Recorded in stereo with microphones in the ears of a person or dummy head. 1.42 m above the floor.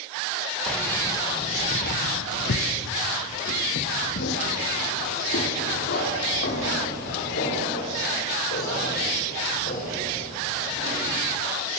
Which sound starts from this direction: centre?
Keys jangling, at 0.7 s.